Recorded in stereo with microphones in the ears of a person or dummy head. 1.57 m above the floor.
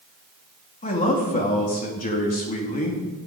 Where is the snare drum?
I don't hear a snare drum.